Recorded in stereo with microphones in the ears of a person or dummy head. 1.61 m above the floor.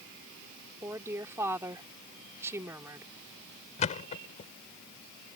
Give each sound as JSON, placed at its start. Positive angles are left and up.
{"t": 0.8, "sound": "a woman speaking", "side_deg": -15}
{"t": 3.8, "sound": "a thud", "side_deg": 40}